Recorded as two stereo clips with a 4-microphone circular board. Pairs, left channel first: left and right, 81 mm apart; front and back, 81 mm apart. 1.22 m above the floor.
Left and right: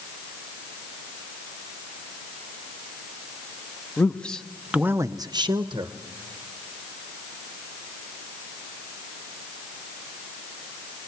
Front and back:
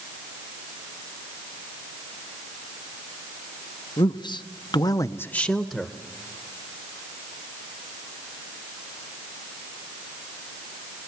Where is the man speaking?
20° left, 1.3 m; by 5.9 s 100° right, 1.2 m.